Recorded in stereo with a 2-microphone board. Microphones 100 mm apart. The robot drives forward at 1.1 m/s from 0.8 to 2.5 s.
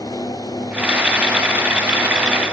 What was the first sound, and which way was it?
Only background noise.